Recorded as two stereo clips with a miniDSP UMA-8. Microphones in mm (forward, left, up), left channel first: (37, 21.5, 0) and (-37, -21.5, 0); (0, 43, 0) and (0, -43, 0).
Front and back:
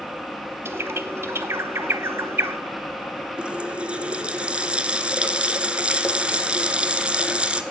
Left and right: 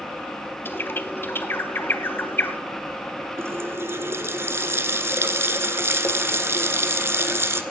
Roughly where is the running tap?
Right.